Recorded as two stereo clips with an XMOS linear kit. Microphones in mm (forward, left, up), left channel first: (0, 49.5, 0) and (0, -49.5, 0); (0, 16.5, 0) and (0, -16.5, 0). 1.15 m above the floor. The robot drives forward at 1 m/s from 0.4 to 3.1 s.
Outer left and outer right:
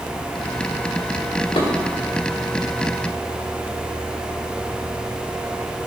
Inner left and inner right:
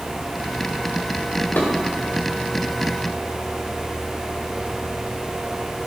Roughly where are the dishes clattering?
Left.